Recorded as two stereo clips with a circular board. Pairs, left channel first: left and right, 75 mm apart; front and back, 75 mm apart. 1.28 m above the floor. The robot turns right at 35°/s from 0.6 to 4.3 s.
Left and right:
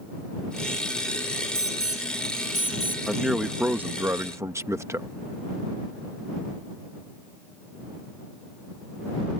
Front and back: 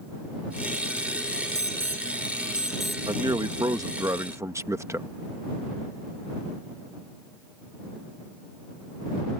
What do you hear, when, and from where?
1.6 s an alarm: 140° right; by 3.0 s 90° right
3.1 s a man speaking: straight behind; by 5.1 s 135° right